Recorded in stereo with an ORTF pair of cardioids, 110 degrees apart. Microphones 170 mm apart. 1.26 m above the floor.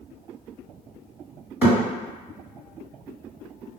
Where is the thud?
10° right, 1.7 m.